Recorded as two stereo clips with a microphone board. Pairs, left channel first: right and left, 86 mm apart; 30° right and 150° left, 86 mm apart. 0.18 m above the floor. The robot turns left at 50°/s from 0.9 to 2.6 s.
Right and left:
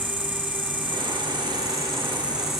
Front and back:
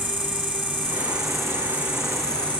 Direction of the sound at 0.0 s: 85° left.